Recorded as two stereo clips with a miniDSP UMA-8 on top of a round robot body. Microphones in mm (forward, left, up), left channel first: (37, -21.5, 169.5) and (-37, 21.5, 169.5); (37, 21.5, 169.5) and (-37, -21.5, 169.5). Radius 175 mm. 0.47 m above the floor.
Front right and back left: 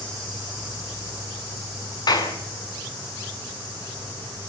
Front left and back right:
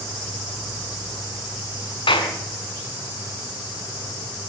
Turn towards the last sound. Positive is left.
turn(degrees=10)